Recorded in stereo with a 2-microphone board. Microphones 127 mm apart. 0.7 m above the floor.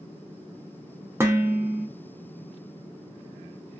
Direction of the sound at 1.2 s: 20° right (ahead or behind).